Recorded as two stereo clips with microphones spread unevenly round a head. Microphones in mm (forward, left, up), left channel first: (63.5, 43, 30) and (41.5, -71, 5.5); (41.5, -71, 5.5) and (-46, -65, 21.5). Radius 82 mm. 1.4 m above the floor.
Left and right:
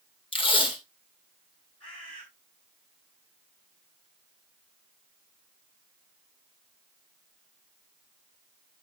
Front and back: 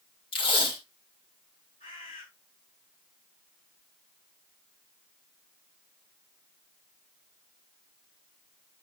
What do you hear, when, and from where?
0.3 s tape being pulled: 35° left, 2 m
1.8 s a bird: 45° left, 5.5 m